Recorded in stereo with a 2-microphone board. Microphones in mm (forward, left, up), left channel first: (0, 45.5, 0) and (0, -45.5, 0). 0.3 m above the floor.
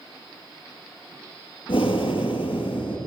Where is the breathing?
70° left (ahead or behind), 2.5 m.